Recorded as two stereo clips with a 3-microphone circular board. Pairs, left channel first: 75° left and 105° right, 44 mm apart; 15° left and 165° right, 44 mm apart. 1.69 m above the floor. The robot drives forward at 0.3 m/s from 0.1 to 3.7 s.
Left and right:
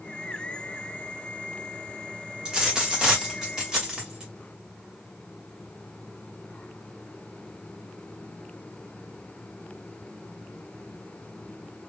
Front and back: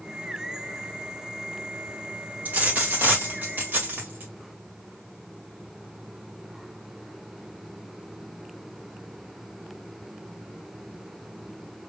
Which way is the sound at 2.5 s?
165° right.